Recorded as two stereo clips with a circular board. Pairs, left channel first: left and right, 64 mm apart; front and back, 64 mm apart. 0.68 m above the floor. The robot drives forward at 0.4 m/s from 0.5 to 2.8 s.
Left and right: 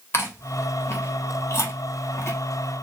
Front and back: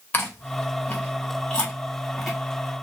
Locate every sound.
0.1 s chewing: 50° left, 1.5 m; by 2.4 s 90° left, 1.3 m